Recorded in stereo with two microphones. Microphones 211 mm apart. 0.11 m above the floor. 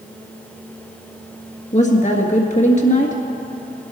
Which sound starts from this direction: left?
A woman speaking, at 1.7 s.